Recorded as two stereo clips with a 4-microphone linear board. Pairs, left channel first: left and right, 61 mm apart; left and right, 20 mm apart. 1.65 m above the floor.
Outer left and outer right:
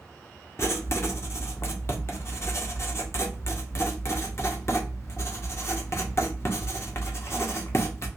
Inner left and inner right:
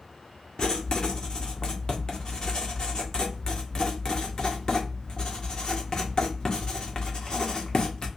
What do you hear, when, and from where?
0.6 s writing: 45° left (ahead or behind), 0.7 m